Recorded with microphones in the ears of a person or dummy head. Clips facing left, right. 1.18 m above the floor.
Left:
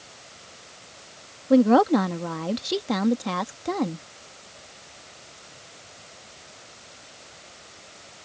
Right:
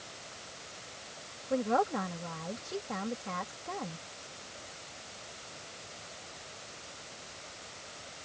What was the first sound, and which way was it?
A woman speaking, 85° left.